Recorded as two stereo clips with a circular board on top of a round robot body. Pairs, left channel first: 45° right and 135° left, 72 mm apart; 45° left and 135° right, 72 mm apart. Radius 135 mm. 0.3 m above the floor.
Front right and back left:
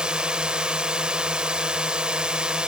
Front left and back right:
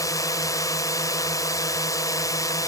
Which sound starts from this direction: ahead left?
A drone, at 0.0 s.